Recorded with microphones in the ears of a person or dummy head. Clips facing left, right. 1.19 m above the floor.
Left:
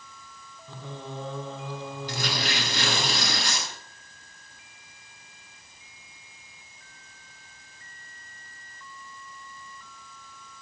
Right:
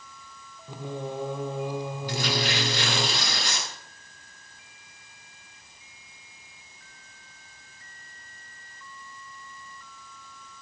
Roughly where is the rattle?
No rattle in this recording.